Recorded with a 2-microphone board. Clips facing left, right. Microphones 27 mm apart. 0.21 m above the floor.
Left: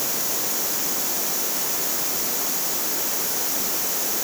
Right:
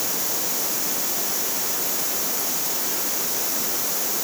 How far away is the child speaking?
No child speaking in this recording.